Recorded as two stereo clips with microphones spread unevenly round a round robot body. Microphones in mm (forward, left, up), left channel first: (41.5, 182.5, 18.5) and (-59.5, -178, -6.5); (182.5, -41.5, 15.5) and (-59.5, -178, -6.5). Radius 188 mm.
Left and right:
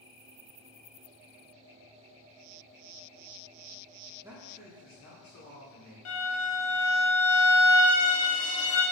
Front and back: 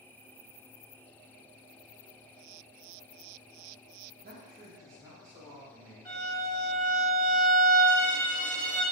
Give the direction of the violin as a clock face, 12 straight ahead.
8 o'clock.